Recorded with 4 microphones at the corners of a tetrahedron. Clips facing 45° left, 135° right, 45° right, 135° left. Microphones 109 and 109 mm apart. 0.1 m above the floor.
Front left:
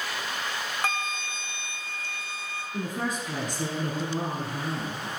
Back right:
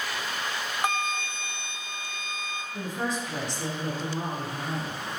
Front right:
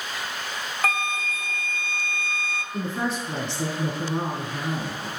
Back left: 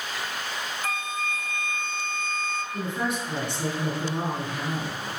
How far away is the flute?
About 0.8 m.